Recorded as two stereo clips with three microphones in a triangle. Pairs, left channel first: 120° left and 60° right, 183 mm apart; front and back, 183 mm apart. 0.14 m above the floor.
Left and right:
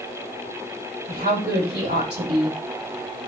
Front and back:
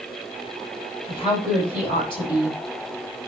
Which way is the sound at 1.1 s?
60° right.